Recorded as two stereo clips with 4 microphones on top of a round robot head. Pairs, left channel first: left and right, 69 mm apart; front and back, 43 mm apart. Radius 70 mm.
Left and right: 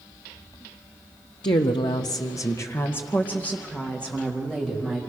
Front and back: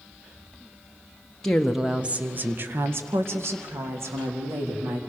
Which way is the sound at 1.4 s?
80° left.